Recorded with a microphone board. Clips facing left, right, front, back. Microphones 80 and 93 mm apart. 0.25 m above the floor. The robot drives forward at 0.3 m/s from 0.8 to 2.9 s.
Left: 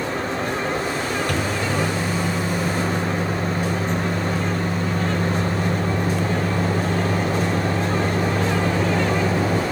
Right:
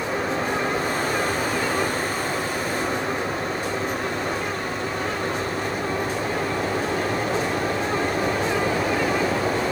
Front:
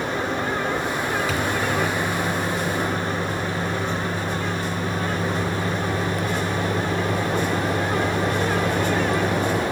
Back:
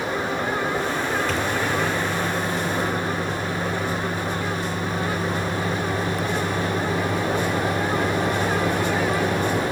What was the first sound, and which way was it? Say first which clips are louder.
A microwave: even, even; 85° left.